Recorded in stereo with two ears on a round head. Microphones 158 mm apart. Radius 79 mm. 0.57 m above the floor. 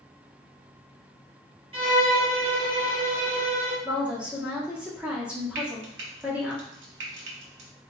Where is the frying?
75° right (ahead or behind), 1.6 m.